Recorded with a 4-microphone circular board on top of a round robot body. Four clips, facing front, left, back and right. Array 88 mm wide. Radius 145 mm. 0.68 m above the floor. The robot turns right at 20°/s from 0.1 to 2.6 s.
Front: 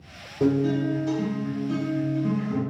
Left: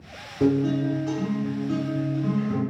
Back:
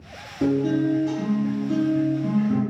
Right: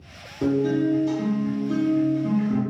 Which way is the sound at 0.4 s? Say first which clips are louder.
Even, back 1 dB; 70° left.